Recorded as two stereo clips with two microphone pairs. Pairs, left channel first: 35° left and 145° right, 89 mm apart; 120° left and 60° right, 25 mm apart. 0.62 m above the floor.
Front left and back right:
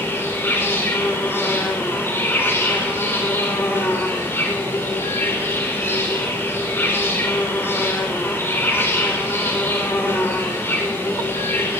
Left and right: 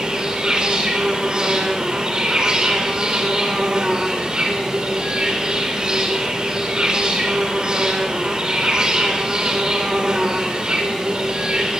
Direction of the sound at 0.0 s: 20° right.